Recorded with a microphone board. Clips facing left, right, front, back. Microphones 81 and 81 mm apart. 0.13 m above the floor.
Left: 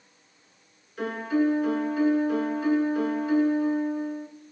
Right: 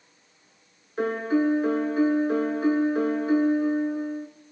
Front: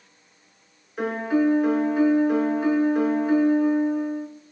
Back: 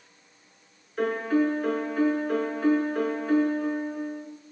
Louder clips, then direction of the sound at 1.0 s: Right 2 dB, front 2 dB; 75° right.